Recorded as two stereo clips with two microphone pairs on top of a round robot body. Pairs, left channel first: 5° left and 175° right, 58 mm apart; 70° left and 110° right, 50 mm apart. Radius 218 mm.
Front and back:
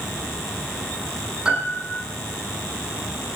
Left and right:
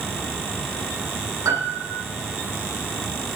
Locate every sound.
1.4 s a piano: 95° right, 9 m